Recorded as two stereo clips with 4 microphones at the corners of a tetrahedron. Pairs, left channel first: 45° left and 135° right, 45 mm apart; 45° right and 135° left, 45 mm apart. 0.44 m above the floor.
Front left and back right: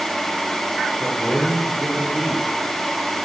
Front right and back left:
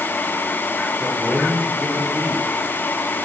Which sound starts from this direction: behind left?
A man speaking, at 1.0 s.